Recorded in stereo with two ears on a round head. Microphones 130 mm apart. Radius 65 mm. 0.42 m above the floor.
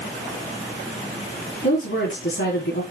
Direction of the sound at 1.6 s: 80° left.